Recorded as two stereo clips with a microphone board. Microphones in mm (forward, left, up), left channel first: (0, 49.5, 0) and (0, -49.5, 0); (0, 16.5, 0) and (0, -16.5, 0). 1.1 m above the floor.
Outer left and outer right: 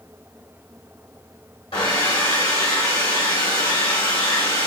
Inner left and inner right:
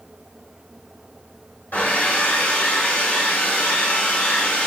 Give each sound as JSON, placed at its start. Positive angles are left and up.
{"t": 1.7, "sound": "a hair dryer", "side_deg": 75, "distance_m": 2.0}